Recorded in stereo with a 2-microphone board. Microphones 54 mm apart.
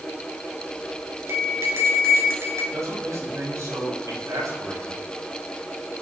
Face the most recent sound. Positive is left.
turn(degrees=-70)  # may be behind; listen again after turning